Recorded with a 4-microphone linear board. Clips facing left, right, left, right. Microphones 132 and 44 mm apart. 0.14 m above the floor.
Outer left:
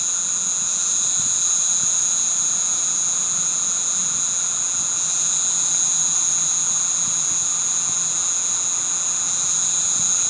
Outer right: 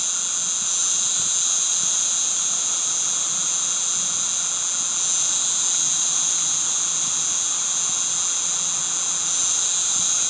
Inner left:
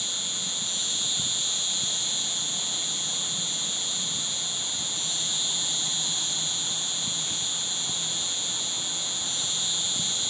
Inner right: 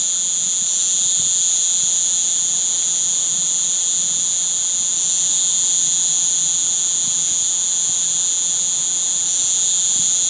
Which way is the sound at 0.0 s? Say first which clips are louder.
Outer left 1 dB, inner right 1 dB; 70° right (ahead or behind).